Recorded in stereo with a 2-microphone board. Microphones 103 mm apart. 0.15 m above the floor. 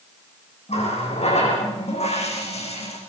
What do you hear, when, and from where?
0.7 s a running tap: 80° left, 6 m